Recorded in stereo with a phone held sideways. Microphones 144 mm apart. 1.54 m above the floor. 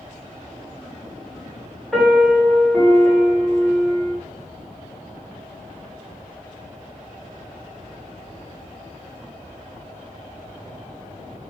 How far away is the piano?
About 3 m.